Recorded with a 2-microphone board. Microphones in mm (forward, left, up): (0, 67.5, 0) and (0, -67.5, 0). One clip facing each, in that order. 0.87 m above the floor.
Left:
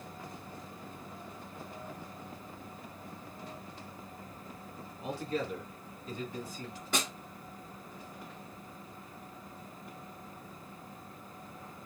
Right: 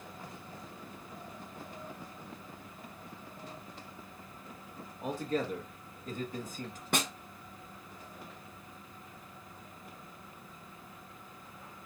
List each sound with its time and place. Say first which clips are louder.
5.0 s a man speaking: right 2 dB; 45° right (ahead or behind), 1.3 m
6.9 s a snare drum: right 2 dB; 55° right (ahead or behind), 1.4 m